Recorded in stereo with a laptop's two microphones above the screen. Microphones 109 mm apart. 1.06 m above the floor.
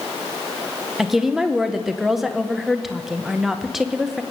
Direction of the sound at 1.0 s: Centre (ahead or behind).